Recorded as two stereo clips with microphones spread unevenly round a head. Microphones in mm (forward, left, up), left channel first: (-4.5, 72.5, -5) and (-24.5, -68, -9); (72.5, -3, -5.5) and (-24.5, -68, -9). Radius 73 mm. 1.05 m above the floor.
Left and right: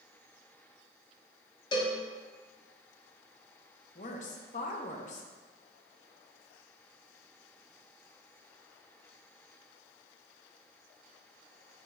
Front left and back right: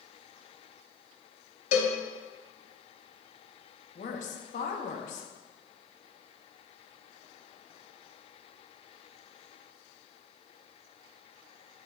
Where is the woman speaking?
45° left, 0.9 m.